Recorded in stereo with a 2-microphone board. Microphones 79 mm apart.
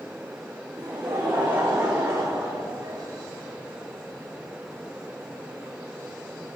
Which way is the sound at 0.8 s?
50° right (ahead or behind).